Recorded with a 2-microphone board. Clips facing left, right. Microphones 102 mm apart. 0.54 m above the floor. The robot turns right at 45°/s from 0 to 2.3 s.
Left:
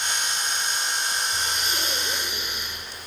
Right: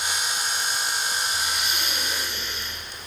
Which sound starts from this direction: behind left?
Breathing, at 1.3 s.